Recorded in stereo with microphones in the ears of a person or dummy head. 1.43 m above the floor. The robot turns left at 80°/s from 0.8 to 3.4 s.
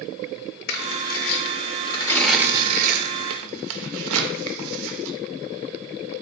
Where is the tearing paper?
55° left (ahead or behind), 0.5 m; by 5.1 s 75° right (ahead or behind), 0.5 m.